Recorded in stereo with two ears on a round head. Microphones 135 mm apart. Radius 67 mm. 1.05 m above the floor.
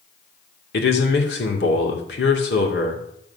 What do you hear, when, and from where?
0.7 s a man speaking: 80° left, 2.5 m